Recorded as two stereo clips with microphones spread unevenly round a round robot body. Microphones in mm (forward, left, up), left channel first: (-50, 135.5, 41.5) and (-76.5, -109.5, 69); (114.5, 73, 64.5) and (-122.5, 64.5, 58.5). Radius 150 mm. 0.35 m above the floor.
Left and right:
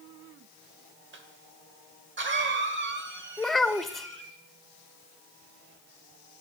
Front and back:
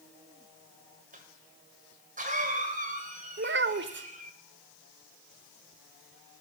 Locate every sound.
1.1 s a cough: 130° right, 1.6 m
3.4 s a child speaking: 165° left, 0.6 m